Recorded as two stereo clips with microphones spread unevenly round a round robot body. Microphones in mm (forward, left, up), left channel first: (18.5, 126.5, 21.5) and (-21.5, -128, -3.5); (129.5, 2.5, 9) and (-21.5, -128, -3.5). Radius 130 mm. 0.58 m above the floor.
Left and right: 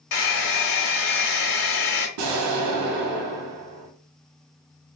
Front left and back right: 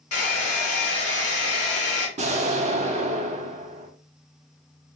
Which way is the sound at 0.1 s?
70° left.